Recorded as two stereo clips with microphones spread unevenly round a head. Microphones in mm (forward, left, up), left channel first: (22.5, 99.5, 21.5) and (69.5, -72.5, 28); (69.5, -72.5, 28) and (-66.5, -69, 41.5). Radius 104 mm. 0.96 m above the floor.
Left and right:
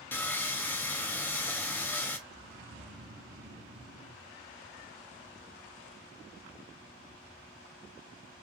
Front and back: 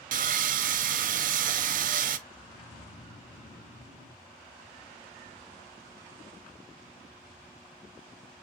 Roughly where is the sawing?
Behind.